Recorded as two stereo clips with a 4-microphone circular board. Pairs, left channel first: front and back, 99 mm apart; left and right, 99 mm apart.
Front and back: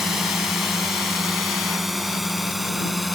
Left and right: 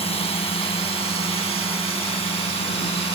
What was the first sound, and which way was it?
A drone, 95° left.